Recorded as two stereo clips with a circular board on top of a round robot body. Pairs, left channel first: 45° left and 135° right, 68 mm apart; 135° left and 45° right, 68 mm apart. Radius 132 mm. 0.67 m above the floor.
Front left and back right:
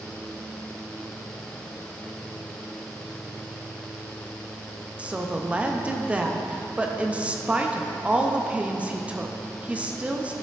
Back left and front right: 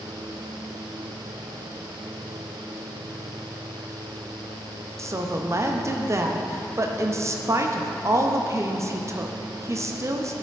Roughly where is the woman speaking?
Right.